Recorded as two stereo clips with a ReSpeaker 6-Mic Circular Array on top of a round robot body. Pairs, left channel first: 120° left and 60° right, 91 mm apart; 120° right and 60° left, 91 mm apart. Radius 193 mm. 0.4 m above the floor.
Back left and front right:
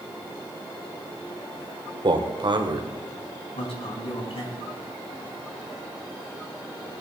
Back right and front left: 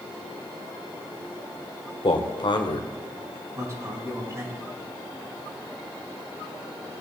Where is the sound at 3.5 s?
120° left, 5 m.